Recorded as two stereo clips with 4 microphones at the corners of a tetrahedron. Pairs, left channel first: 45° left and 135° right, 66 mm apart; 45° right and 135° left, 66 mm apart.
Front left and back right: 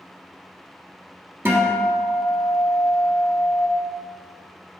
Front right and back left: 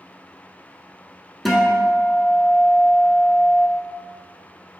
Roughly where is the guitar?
Behind right.